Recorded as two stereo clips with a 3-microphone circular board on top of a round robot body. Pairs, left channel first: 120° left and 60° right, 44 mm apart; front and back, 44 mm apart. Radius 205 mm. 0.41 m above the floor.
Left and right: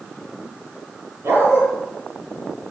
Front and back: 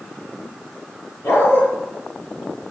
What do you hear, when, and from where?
1.2 s a dog barking: 25° right, 6 m